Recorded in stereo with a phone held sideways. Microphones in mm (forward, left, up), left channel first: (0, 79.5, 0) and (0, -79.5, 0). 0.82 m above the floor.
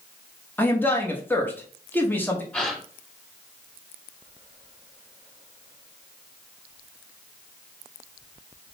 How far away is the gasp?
About 1.7 m.